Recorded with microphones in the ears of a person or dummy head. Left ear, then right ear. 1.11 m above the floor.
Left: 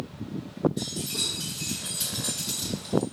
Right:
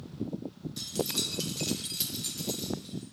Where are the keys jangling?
85° right, 1.0 m; by 3.0 s 15° left (ahead or behind), 1.1 m.